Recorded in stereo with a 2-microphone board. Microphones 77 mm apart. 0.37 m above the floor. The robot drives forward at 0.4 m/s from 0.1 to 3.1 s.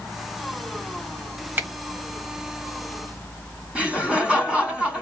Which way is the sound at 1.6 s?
25° right (ahead or behind).